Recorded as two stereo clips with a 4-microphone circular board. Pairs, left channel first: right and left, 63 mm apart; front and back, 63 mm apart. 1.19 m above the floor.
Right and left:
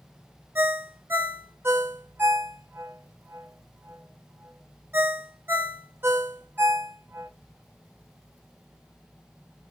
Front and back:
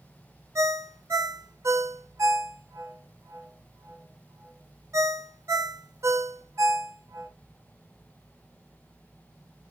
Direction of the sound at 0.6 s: 145° left.